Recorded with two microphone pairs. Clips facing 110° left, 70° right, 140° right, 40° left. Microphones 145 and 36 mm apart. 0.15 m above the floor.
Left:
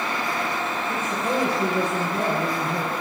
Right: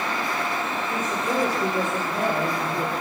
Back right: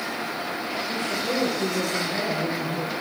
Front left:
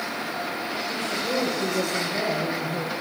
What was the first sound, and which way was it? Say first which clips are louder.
A woman speaking: left 1 dB, even; 165° left.